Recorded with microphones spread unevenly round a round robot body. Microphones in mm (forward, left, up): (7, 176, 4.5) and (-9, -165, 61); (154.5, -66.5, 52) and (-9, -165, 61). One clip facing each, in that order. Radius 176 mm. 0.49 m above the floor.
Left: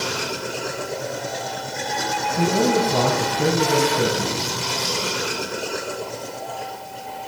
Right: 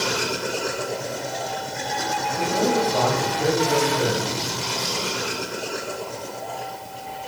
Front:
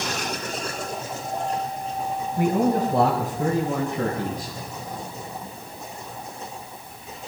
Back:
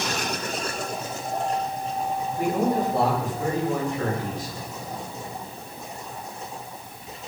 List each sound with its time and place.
2.4 s a man speaking: 80° left, 4 m